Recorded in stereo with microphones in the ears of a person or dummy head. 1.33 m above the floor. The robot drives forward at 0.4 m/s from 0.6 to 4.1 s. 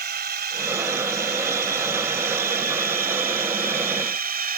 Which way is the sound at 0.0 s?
50° right (ahead or behind).